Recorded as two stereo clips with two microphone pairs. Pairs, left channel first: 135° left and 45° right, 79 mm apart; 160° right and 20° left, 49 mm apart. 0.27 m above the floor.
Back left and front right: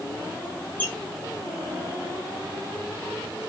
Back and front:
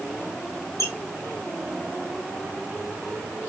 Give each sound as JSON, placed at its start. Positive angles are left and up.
{"t": 0.8, "sound": "a squeak", "azimuth_deg": -160, "distance_m": 1.6}